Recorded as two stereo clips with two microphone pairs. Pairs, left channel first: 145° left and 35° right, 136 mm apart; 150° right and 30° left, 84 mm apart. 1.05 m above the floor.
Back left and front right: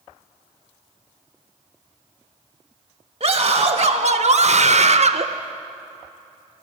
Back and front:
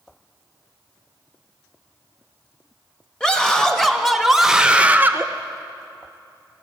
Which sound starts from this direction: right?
A scream, at 3.2 s.